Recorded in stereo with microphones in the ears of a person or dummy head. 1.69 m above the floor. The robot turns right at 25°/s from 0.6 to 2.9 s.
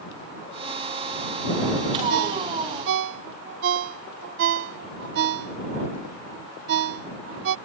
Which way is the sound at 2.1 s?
65° right (ahead or behind).